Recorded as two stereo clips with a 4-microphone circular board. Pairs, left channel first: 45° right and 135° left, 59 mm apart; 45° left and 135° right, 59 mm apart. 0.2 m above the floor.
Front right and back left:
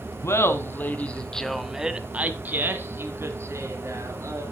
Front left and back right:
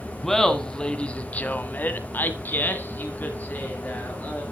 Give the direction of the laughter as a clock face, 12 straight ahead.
1 o'clock.